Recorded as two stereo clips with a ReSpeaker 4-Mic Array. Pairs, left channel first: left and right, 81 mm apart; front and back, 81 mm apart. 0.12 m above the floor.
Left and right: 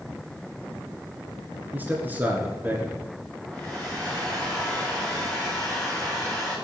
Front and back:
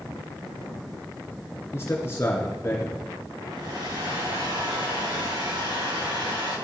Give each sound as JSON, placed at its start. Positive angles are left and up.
{"t": 1.7, "sound": "a man speaking", "azimuth_deg": -35, "distance_m": 2.0}
{"t": 3.5, "sound": "a hair dryer", "azimuth_deg": 165, "distance_m": 9.0}